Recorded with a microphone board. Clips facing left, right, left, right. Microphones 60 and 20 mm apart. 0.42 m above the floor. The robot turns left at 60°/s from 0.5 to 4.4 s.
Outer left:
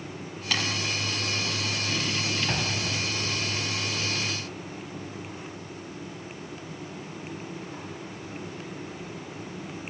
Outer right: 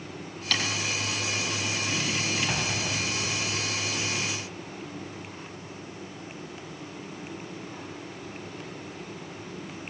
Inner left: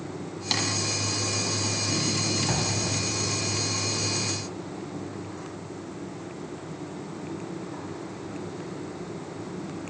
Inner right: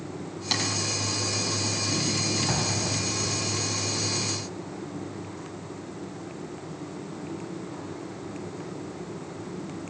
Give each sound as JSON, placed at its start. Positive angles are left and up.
{"t": 0.5, "sound": "tapping", "side_deg": 10, "distance_m": 9.0}
{"t": 2.5, "sound": "an explosion", "azimuth_deg": 5, "distance_m": 2.0}